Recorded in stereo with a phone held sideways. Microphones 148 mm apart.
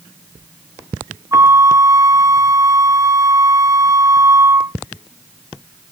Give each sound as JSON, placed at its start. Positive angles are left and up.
{"t": 1.3, "sound": "a flute", "side_deg": -20, "distance_m": 1.2}